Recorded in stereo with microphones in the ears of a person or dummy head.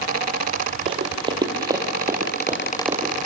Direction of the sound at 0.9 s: 30° right (ahead or behind).